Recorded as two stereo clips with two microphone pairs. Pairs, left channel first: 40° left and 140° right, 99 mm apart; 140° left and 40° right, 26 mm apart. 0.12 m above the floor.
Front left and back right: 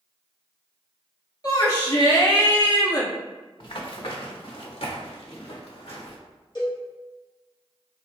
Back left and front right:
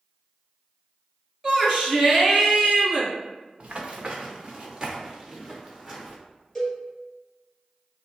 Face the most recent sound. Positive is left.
turn(degrees=55)